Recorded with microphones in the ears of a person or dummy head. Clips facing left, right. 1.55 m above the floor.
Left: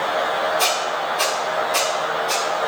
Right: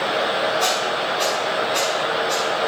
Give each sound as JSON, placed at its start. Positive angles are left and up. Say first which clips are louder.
{"t": 0.6, "sound": "a squeak", "louder": "right 1 dB", "side_deg": 30, "distance_m": 1.5}